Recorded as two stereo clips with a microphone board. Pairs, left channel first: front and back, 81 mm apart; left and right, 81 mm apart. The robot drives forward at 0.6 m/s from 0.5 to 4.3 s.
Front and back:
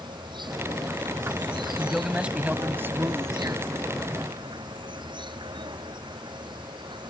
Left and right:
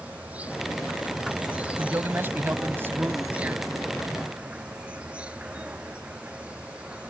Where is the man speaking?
95° right; by 3.7 s 150° right.